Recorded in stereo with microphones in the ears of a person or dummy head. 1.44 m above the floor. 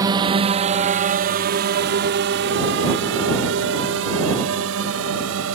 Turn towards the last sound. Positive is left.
turn(degrees=-85)